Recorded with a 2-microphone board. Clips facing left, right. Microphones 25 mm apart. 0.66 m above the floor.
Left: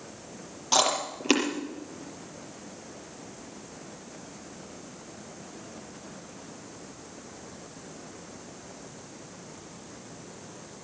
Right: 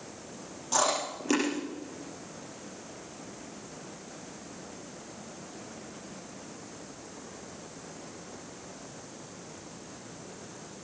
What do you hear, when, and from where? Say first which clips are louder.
0.7 s chewing: left 3 dB; 45° left (ahead or behind), 5.5 m